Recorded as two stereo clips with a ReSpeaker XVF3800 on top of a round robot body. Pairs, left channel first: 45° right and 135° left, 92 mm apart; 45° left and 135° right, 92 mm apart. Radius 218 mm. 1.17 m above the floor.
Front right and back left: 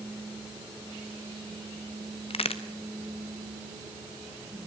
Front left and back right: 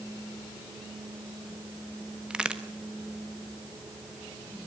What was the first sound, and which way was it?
A crack, 55° right.